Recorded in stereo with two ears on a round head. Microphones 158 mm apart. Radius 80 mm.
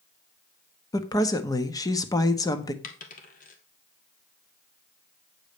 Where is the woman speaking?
20° left (ahead or behind), 1.2 m.